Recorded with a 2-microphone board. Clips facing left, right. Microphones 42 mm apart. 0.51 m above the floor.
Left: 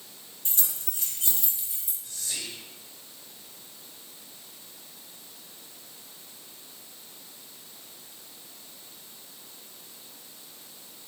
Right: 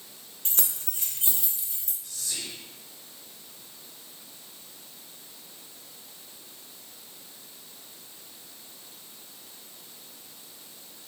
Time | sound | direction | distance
0.5 | keys jangling | 60° right (ahead or behind) | 0.9 m
2.0 | whispering | 35° left (ahead or behind) | 1.7 m